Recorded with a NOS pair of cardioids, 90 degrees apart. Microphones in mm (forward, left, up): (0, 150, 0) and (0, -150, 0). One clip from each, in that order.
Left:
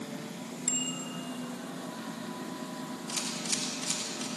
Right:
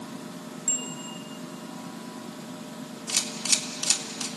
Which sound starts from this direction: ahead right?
A camera shutter, at 3.1 s.